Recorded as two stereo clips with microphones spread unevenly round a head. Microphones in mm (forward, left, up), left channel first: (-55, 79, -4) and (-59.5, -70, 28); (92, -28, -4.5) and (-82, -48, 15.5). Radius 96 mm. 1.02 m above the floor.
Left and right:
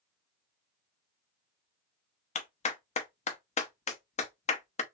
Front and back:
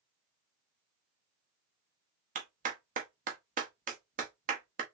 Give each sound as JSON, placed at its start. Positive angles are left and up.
{"t": 2.4, "sound": "a clap", "azimuth_deg": 135, "distance_m": 0.9}